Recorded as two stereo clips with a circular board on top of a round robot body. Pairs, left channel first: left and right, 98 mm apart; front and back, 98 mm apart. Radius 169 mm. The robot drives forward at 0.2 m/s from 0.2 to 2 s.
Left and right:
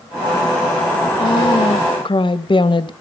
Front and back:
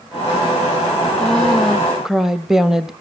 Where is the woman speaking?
80° left, 1.0 m; by 2.9 s 95° left, 1.0 m.